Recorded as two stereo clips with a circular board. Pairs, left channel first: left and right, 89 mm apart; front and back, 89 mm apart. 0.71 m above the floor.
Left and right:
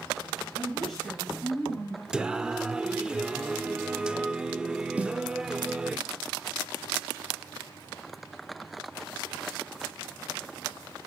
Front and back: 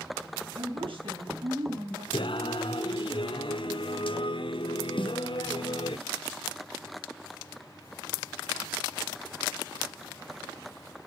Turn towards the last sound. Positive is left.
turn(degrees=-15)